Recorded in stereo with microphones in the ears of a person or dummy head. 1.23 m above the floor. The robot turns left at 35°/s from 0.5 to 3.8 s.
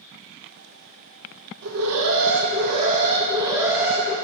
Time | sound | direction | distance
1.6 | an alarm | 95° right | 0.8 m